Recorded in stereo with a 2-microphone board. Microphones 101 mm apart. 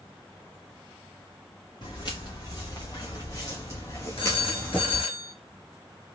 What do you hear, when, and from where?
1.8 s footsteps: 45° left (ahead or behind), 3.5 m; by 5.0 s 5° left (ahead or behind), 1.2 m
4.2 s a phone ringing: 65° left (ahead or behind), 1.5 m